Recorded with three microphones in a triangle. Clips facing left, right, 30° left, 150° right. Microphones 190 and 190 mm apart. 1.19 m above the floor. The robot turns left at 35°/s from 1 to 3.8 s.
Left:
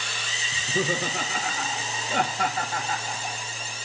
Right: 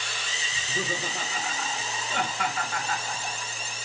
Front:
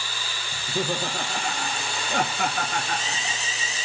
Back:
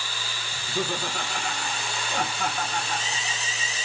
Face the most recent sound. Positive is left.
turn(degrees=-5)